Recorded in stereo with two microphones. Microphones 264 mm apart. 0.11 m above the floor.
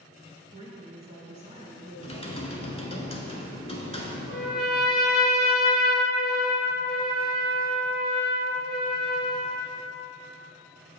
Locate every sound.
0.5 s a woman speaking: 25° right (ahead or behind), 1.2 m
2.0 s typing on a keyboard: 25° left (ahead or behind), 0.8 m
4.3 s a trumpet: 40° left (ahead or behind), 0.9 m